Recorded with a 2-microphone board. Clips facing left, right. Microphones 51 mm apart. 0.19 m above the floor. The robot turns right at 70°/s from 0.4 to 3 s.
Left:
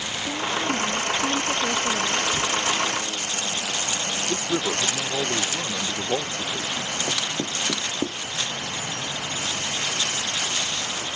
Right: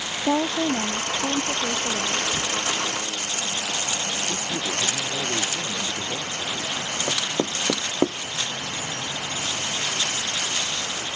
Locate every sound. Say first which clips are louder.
0.3 s a woman speaking: right 4 dB; 110° right; by 2.2 s 20° left
2.3 s a camera shutter: left 2 dB; 5° right (ahead or behind); by 2.5 s 20° right (ahead or behind)
4.3 s a man speaking: left 3 dB; 55° left (ahead or behind)
7.1 s knocking: right 2 dB; 45° right (ahead or behind)